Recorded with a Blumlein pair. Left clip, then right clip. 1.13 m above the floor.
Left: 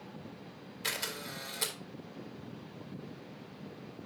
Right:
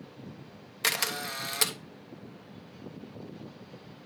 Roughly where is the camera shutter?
Ahead right.